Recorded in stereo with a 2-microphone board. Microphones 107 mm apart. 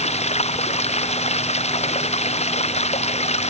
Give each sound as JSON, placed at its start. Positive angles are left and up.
{"t": 0.0, "sound": "running water", "side_deg": 85}